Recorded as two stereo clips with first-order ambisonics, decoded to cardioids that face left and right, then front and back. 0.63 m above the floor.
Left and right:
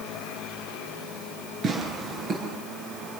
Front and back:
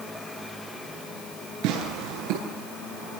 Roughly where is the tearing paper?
Behind right.